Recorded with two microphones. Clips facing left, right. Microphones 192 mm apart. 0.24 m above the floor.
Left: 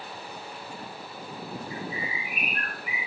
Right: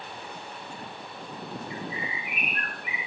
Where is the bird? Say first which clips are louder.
Left 1 dB; 35° left (ahead or behind), 5.5 m.